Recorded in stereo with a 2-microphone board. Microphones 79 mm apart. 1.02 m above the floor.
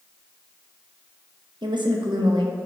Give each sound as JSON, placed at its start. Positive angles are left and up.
{"t": 1.6, "sound": "a woman speaking", "side_deg": -70, "distance_m": 1.0}